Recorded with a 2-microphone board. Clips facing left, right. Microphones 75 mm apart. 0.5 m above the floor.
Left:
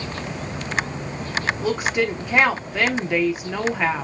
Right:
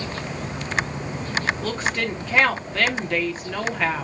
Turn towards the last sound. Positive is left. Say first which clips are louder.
# left 4 dB
turn(degrees=15)  # may be behind; listen again after turning